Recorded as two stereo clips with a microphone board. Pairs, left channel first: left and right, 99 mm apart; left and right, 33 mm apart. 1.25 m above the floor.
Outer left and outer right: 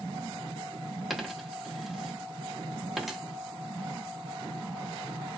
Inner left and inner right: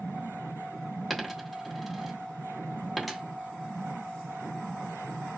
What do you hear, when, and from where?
1.1 s a dropped coin: 5° right (ahead or behind), 0.8 m